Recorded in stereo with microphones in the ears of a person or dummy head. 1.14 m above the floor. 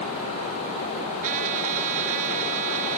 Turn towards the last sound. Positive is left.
turn(degrees=-40)  # may be behind; listen again after turning